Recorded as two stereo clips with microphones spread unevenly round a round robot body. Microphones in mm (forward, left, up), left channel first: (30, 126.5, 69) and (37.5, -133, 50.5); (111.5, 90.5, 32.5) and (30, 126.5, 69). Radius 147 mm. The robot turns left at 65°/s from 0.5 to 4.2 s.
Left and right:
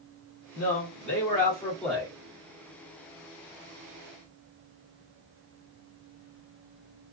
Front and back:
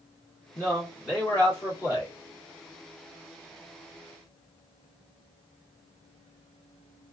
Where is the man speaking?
80° left, 2.0 m; by 2.1 s 20° right, 2.0 m.